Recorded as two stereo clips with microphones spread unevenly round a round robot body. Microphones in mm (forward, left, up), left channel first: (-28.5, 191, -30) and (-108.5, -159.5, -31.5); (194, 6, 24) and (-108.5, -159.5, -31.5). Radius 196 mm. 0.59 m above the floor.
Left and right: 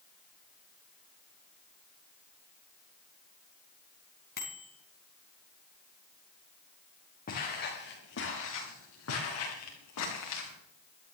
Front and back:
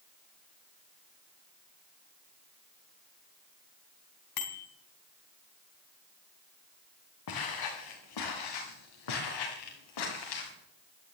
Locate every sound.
4.4 s a bicycle bell: 10° left, 3.5 m
7.3 s footsteps: 5° left, 4.5 m; by 10.5 s 25° left, 7.5 m